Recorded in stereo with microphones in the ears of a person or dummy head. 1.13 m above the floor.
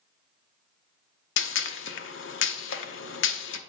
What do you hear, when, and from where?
1.4 s a gunshot: 65° left (ahead or behind), 0.7 m